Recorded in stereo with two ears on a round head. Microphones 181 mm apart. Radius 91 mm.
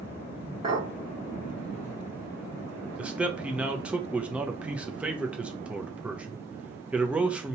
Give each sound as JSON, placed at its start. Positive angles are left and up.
{"t": 0.6, "sound": "a clink", "side_deg": -35, "distance_m": 2.0}
{"t": 3.0, "sound": "a man speaking", "side_deg": -5, "distance_m": 0.6}